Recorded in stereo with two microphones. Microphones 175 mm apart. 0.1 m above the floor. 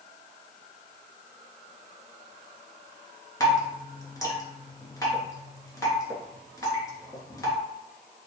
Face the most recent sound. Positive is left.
turn(degrees=20)  # may be behind; listen again after turning